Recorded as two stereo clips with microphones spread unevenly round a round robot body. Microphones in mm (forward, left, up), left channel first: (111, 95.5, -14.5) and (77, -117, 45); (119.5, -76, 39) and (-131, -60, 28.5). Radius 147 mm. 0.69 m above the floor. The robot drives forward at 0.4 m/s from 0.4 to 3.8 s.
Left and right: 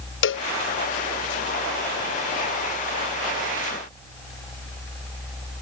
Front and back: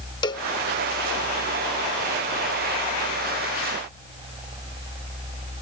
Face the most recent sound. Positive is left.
turn(degrees=140)